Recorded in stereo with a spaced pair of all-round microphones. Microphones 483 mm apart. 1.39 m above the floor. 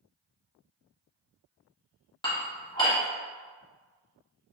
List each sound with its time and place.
2.2 s dishes clattering: 10° left (ahead or behind), 1.1 m